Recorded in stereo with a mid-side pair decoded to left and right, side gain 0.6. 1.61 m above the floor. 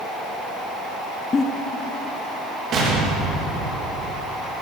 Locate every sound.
1.3 s a giggle: 30° left, 0.8 m
2.7 s an explosion: 50° right, 2.5 m